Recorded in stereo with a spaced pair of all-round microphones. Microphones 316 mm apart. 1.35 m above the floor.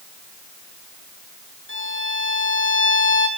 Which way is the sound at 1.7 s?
40° left (ahead or behind).